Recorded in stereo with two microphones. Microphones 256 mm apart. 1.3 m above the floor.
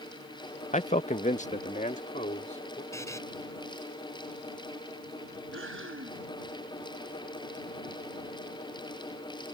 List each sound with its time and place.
0.7 s a man speaking: 25° left (ahead or behind); by 2.8 s 30° left (ahead or behind)
2.9 s a buzzer: 10° left (ahead or behind)
5.5 s breathing: 55° right (ahead or behind)